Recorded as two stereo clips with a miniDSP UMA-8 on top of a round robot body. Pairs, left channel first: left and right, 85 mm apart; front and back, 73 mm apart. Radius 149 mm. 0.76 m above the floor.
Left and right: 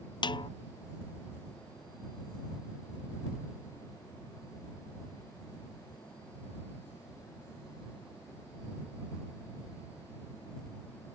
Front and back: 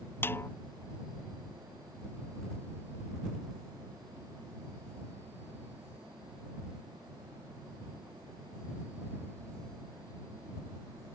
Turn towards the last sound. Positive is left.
turn(degrees=60)